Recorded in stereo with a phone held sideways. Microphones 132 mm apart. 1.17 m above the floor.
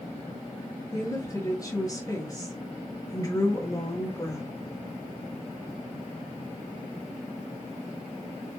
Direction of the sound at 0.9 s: 25° left (ahead or behind).